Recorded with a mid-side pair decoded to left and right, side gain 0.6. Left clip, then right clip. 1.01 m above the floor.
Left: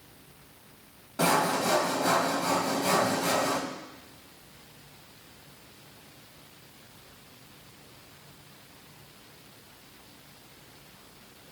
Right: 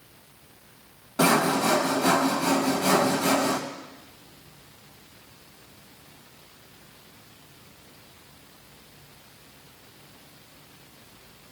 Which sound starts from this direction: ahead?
Sawing, at 1.2 s.